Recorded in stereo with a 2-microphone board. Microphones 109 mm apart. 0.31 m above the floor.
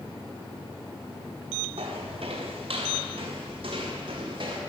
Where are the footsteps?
65° right (ahead or behind), 5.5 m; by 4.6 s 50° right (ahead or behind), 5 m.